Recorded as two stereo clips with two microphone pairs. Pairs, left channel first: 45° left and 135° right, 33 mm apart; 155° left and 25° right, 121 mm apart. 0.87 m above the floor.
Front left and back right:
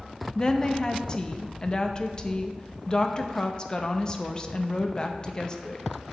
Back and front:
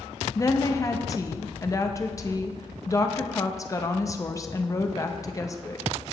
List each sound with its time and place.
0.3 s a woman speaking: 105° left, 0.6 m